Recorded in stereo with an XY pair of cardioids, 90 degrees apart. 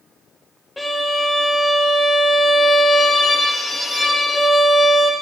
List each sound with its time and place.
0.8 s a violin: 15° left, 0.8 m